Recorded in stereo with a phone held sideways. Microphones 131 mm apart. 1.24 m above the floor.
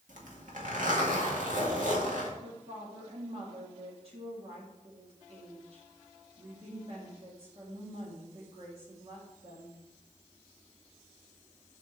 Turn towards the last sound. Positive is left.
turn(degrees=-45)  # may be behind; listen again after turning